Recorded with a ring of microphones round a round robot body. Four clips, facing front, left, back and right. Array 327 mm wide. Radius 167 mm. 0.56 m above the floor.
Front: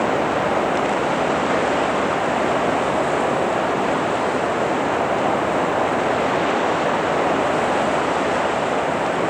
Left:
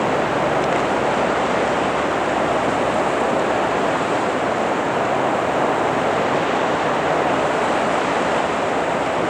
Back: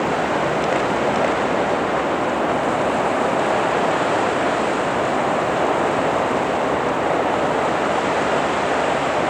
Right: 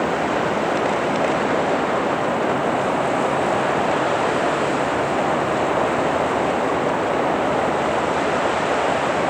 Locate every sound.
Only background noise.